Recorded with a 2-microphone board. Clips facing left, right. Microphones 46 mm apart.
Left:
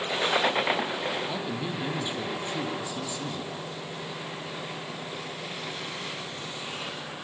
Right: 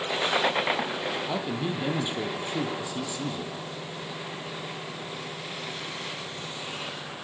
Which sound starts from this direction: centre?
A man speaking, at 1.2 s.